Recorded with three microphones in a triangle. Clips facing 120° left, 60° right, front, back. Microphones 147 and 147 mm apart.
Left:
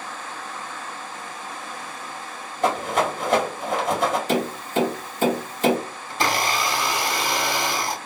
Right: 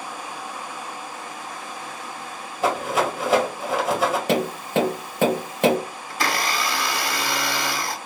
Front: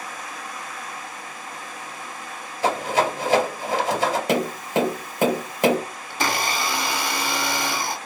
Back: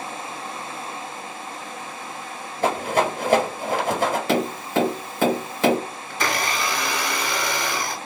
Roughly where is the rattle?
Behind right.